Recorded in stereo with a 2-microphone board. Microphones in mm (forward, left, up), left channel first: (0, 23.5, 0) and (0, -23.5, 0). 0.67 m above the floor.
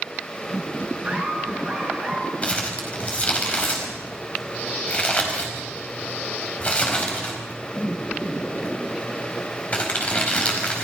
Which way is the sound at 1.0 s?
15° right (ahead or behind).